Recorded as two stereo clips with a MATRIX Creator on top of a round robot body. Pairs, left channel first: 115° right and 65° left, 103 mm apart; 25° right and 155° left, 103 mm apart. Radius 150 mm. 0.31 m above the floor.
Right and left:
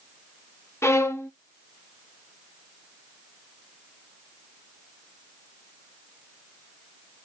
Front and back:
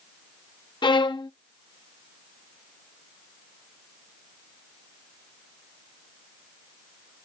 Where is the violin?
50° right, 0.7 m.